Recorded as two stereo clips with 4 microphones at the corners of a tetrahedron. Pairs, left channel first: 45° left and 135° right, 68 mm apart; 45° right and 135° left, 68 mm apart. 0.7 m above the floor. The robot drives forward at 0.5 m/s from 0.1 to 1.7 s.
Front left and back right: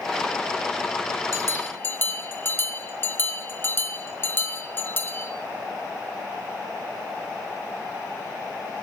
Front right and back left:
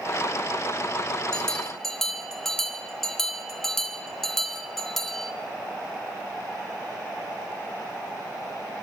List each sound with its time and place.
1.3 s a bell: 25° left, 1.0 m; by 5.3 s 35° left, 0.9 m